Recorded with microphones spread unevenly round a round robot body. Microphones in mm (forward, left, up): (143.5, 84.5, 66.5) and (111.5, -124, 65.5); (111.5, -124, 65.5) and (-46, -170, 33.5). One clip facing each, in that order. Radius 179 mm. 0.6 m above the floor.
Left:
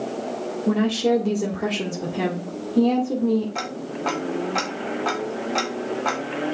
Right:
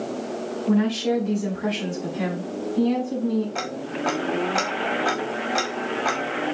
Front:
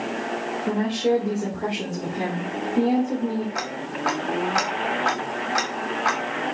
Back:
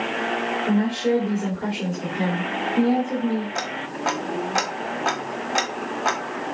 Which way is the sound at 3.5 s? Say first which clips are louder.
Right 1 dB, even; 175° left.